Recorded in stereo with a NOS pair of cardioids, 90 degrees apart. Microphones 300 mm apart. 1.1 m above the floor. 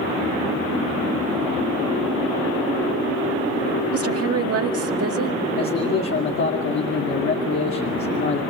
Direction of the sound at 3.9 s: 50° right.